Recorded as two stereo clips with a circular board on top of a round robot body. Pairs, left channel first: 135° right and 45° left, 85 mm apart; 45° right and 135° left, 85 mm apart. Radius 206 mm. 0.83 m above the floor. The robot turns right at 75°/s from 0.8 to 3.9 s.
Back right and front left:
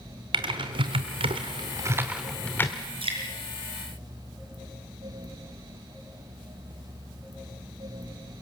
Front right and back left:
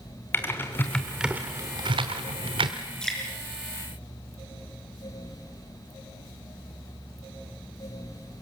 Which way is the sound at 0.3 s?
20° left.